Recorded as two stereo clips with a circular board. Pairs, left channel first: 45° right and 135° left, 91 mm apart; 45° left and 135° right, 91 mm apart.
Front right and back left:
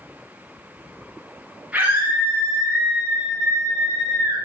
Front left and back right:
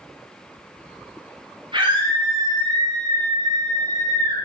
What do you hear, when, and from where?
1.7 s a scream: 150° right, 9.5 m; by 4.3 s 165° right, 7.5 m